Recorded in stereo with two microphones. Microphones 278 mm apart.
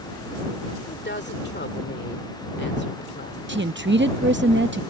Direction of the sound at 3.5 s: 40° right (ahead or behind).